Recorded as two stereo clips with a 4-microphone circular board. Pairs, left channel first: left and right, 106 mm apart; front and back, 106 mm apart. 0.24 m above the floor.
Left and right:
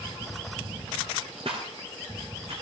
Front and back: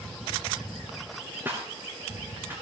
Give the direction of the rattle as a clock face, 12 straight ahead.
4 o'clock.